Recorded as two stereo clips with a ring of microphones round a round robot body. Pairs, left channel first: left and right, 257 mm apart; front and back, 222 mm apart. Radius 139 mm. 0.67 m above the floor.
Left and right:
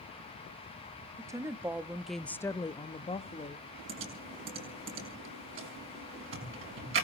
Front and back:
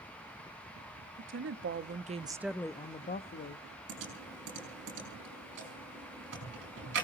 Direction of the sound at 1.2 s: 165° right.